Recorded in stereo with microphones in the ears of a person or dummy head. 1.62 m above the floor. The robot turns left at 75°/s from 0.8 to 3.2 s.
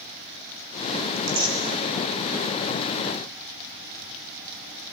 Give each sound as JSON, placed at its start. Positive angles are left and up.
{"t": 1.2, "sound": "tearing paper", "side_deg": -40, "distance_m": 2.5}